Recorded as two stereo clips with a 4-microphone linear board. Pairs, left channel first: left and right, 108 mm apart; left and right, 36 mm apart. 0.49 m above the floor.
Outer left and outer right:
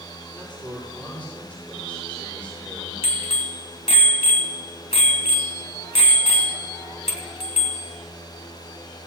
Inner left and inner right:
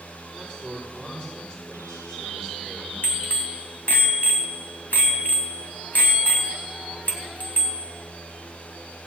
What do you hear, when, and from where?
0.3 s a man speaking: 20° left (ahead or behind), 8 m
3.0 s a bicycle bell: 70° left (ahead or behind), 2.5 m